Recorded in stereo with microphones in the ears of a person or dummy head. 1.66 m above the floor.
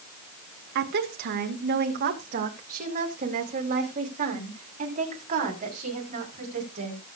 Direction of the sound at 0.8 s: 55° right (ahead or behind).